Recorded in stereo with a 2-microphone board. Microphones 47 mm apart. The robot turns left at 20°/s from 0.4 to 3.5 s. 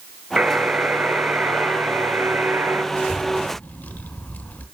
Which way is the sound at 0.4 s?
35° right.